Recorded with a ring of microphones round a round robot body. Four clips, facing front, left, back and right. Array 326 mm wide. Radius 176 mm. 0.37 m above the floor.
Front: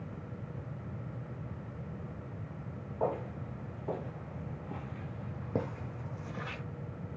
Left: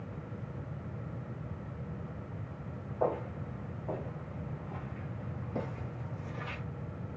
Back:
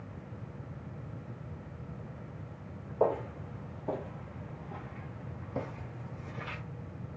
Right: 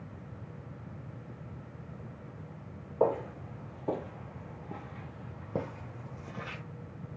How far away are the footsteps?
About 1.1 m.